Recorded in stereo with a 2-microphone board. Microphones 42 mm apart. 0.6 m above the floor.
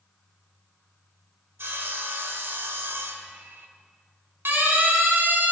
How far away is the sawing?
About 2.5 m.